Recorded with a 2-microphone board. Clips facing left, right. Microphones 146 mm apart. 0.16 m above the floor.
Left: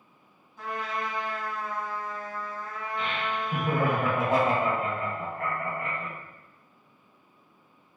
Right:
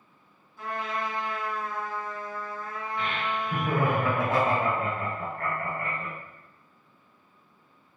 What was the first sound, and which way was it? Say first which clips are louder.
A trumpet: right 1 dB; 20° left (ahead or behind).